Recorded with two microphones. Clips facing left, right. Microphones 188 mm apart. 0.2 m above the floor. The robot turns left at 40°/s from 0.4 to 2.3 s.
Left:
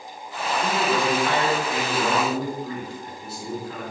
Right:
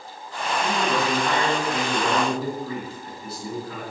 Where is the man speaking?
155° right, 1.8 m; by 3.8 s 135° left, 1.8 m.